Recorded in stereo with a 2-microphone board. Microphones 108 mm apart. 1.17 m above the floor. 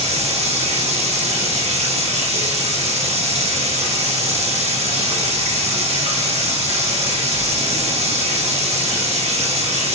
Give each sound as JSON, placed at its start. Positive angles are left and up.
{"t": 0.0, "sound": "running water", "side_deg": -70, "distance_m": 0.9}